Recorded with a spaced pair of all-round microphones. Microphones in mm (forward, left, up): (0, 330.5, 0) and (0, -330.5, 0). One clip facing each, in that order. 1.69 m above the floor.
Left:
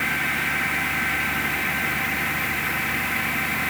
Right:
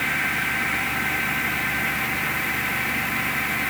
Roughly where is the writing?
No writing in this recording.